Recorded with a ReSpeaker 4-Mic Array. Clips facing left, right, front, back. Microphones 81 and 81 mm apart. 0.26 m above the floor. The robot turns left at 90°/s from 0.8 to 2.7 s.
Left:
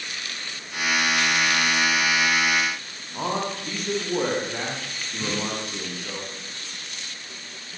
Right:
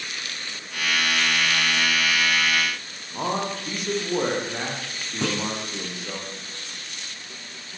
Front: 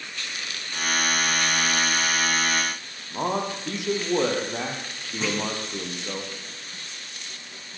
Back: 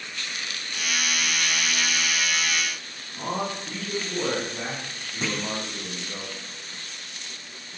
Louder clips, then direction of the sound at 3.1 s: Right 1 dB, front 3 dB; 5° right.